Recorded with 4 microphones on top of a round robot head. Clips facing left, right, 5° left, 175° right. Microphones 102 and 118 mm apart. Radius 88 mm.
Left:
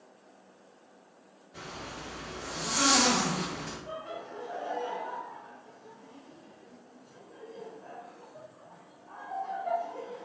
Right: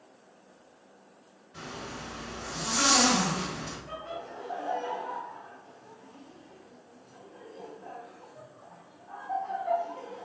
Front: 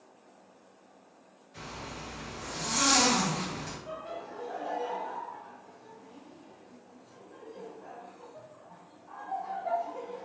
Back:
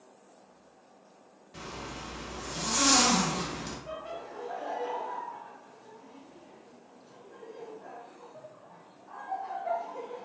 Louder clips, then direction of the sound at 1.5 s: Right 2 dB, back 1 dB; 165° left.